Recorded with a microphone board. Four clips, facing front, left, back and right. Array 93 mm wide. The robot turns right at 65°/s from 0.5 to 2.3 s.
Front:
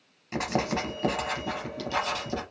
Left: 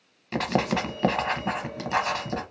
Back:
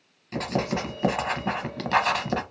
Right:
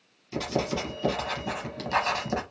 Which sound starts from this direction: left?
Writing, at 0.3 s.